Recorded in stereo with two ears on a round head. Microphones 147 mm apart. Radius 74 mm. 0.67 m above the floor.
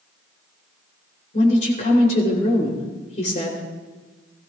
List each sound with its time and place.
1.3 s a woman speaking: 45° left (ahead or behind), 3 m